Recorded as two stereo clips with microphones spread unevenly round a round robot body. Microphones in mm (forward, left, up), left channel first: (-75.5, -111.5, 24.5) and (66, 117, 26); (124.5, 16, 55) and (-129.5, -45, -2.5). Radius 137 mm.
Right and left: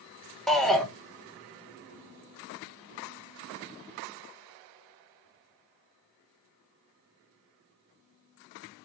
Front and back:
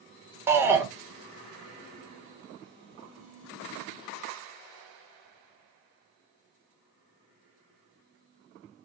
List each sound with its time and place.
0.5 s a shout: 150° left, 1.2 m